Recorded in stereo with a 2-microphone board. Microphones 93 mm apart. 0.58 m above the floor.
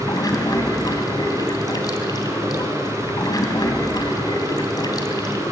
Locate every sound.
0.0 s running water: 45° left (ahead or behind), 2.0 m